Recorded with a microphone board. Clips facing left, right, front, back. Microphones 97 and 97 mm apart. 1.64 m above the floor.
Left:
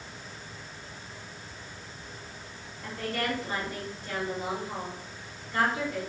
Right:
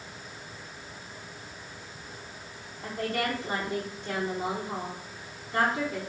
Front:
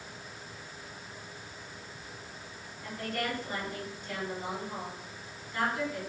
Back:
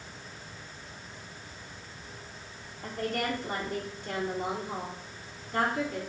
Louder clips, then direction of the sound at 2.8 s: Right 2 dB, back 3 dB; 155° right.